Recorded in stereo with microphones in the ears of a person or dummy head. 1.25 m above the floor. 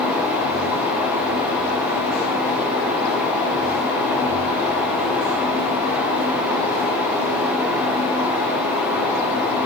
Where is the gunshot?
No gunshot in this recording.